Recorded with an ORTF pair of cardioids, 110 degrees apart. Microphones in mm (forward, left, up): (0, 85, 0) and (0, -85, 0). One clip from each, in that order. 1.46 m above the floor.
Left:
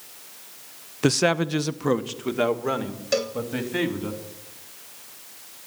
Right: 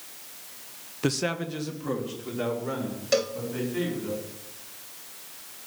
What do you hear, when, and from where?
1.0 s a man speaking: 25° left, 0.6 m; by 4.1 s 70° left, 4 m
3.1 s a cowbell: straight ahead, 0.9 m